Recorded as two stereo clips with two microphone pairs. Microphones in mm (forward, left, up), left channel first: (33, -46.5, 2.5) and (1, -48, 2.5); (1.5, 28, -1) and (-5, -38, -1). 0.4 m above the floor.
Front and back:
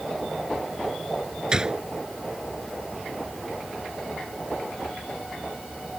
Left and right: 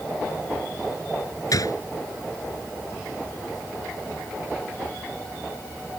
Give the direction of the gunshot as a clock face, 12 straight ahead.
8 o'clock.